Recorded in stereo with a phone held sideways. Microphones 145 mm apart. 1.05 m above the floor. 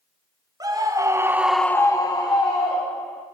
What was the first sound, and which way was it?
A scream, 25° right (ahead or behind).